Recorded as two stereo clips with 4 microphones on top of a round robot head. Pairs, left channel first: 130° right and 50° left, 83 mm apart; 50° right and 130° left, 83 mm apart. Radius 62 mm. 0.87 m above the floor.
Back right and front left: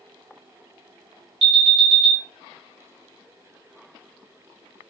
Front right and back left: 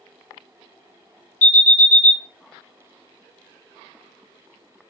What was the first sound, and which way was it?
An alarm, 25° left.